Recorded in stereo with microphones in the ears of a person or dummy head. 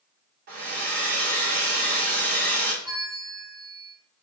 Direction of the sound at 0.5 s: 55° right (ahead or behind).